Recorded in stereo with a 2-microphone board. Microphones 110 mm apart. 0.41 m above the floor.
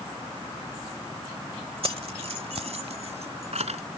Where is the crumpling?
No crumpling in this recording.